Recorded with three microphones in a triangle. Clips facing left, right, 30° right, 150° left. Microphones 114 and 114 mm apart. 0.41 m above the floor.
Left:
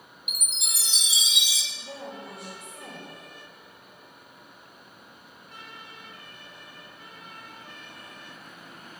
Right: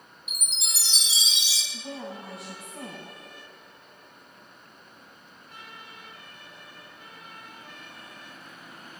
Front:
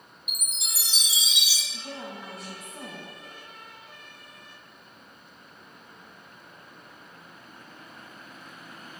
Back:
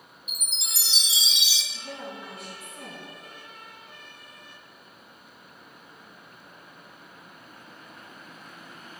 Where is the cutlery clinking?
No cutlery clinking in this recording.